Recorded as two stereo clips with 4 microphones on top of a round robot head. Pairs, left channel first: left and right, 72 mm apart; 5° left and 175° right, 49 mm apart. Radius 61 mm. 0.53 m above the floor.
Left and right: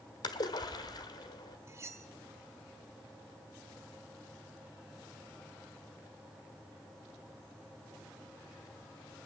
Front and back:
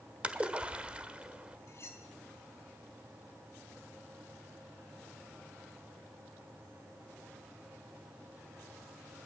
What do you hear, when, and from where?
0.2 s a splash: 120° left, 1.7 m
1.7 s cutlery clinking: 40° right, 1.6 m